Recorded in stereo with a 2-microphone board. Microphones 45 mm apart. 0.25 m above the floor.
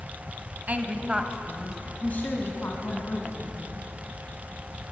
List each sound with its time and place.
0.7 s a woman speaking: 40° right (ahead or behind), 1.8 m; by 3.8 s 70° left (ahead or behind), 3.5 m